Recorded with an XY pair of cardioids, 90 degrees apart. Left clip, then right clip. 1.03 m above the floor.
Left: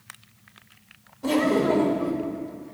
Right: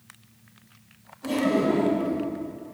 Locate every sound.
1.2 s laughter: 55° left, 4.5 m